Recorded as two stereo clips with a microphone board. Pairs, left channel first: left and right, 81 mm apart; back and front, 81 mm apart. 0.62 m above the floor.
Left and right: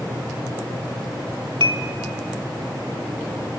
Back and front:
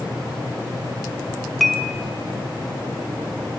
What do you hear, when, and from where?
1.6 s dishes clattering: 90° right, 1.7 m